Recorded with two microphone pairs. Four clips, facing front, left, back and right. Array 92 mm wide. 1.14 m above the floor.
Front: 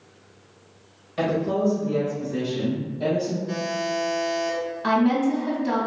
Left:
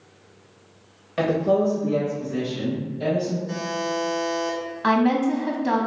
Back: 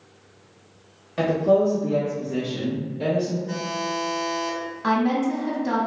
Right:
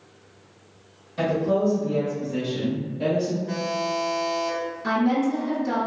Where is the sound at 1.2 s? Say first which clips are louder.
Left 2 dB, back 4 dB; 110° left, 0.7 m; by 3.4 s 160° right, 1.7 m.